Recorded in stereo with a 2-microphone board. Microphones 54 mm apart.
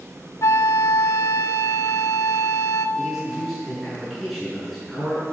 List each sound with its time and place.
0.4 s a flute: 70° left (ahead or behind), 0.6 m
3.0 s a man speaking: centre (ahead or behind), 7 m